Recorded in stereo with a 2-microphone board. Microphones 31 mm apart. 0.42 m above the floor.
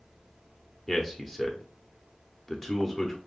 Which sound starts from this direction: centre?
A man speaking, at 0.9 s.